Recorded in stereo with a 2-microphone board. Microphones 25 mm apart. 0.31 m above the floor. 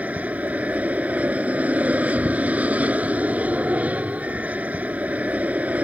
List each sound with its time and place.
0.0 s an aircraft: 70° right (ahead or behind)